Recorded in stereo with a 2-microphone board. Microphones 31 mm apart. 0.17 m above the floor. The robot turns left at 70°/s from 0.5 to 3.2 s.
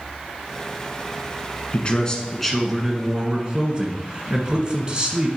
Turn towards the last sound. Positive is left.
turn(degrees=-45)